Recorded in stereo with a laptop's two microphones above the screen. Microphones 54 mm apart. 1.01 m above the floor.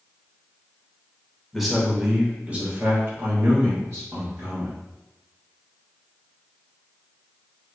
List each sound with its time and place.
1.5 s a man speaking: centre (ahead or behind), 1.0 m; by 4.8 s 60° right (ahead or behind), 1.7 m